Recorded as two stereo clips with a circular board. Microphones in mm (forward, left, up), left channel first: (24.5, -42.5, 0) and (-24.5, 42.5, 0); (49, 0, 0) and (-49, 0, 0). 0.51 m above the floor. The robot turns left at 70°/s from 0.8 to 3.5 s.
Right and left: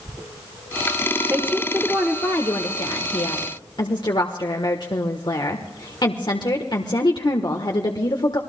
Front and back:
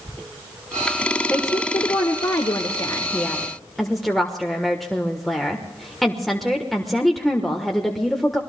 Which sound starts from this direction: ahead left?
A woman speaking, at 1.3 s.